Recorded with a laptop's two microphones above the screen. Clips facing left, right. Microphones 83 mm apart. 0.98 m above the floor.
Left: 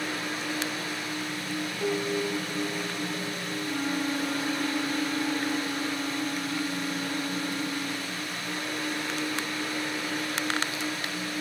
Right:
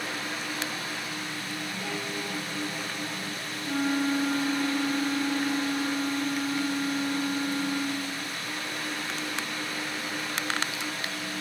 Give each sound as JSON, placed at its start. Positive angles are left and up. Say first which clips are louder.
{"t": 0.0, "sound": "a fan", "louder": "left 2 dB", "side_deg": 5, "distance_m": 1.9}
{"t": 1.8, "sound": "a piano", "louder": "left 9 dB", "side_deg": 30, "distance_m": 0.8}
{"t": 3.6, "sound": "a flute", "louder": "right 4 dB", "side_deg": -40, "distance_m": 0.5}